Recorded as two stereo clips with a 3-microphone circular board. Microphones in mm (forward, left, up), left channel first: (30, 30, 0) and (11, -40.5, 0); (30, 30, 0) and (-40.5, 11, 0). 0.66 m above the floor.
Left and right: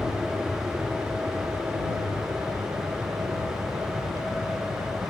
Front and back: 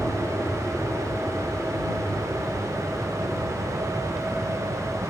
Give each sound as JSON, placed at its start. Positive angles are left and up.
{"t": 0.0, "sound": "an aircraft", "azimuth_deg": -45}